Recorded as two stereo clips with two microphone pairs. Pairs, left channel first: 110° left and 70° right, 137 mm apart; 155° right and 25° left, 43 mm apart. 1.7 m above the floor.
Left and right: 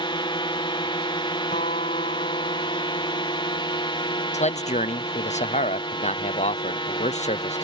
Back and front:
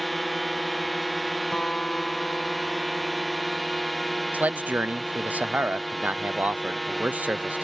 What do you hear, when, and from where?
0.0 s a drone: 115° left
1.5 s a guitar: 130° left
4.3 s a man speaking: 75° left